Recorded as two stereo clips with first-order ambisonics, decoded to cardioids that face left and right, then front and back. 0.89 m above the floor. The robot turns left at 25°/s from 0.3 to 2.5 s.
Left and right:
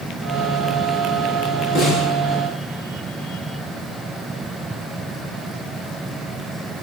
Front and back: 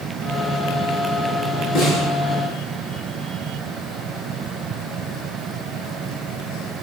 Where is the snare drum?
40° left, 8.5 m; by 2.1 s 30° left, 8.5 m.